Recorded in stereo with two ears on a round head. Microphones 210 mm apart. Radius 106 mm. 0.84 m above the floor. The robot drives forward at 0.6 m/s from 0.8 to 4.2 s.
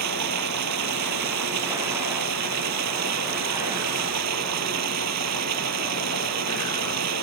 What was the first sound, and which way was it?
Running water, 85° right.